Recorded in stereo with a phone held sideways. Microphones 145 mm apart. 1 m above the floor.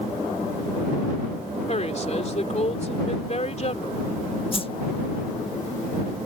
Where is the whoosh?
40° left (ahead or behind).